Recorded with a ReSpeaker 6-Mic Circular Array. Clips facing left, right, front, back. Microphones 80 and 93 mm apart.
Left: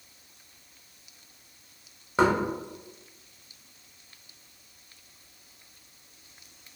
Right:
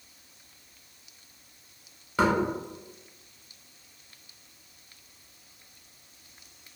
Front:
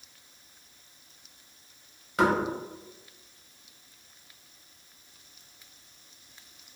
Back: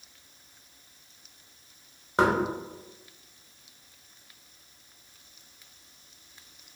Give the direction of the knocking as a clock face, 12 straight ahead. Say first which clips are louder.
Left 2 dB, back 1 dB; 7 o'clock.